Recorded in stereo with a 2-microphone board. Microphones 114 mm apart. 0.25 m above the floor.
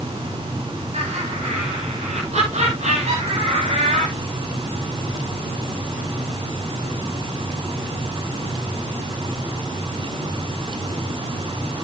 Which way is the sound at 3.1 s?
70° right (ahead or behind).